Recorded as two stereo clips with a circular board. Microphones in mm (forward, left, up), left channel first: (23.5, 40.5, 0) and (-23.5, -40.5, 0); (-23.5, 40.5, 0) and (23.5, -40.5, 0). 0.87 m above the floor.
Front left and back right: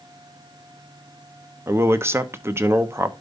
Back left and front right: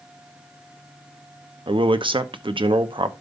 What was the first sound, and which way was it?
A man speaking, 60° right.